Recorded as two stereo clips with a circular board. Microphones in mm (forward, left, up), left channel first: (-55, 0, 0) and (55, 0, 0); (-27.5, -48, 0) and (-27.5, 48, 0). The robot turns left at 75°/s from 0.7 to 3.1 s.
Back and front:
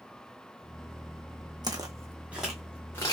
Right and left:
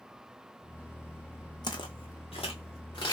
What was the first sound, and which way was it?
Footsteps, 50° right.